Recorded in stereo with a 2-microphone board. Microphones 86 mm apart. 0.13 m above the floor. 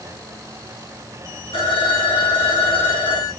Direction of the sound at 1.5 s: 75° left (ahead or behind).